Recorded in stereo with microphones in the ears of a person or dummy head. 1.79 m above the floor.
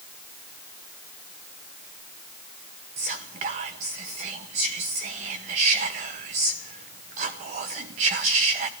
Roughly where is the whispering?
Right.